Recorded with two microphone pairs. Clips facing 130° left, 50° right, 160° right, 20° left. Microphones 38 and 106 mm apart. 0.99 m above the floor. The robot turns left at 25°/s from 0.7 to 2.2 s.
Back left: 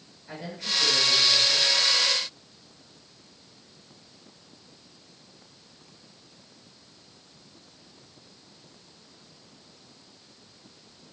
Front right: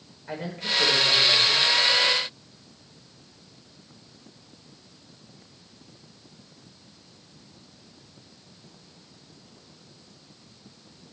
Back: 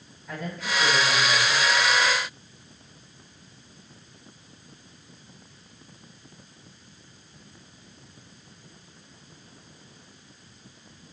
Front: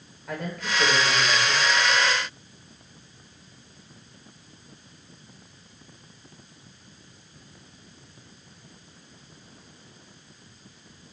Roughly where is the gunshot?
No gunshot in this recording.